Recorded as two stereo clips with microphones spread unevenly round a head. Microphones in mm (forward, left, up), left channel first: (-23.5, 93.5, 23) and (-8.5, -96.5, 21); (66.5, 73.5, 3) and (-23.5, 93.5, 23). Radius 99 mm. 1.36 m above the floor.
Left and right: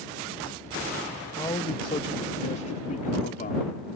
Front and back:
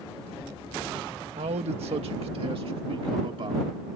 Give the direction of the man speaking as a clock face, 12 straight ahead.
6 o'clock.